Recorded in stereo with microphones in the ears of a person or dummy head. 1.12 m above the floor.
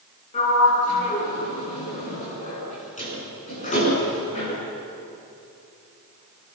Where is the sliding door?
30° left (ahead or behind), 8.5 m.